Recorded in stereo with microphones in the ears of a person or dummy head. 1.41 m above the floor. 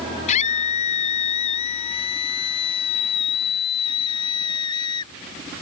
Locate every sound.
0.3 s a scream: 40° left (ahead or behind); by 5.1 s 25° left (ahead or behind)